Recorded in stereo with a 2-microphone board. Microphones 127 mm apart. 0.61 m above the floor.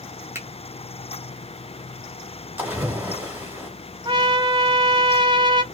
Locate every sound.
0.3 s a finger snap: 20° right (ahead or behind), 1.3 m
2.6 s a splash: 15° right (ahead or behind), 1.5 m
4.0 s a trumpet: 40° right (ahead or behind), 0.6 m